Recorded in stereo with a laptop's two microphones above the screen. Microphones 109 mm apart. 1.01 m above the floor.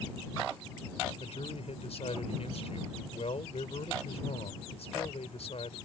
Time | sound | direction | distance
1.2 | a man speaking | 70° left (ahead or behind) | ?